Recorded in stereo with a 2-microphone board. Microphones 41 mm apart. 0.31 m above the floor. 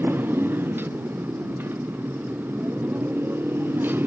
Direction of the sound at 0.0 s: 55° right (ahead or behind).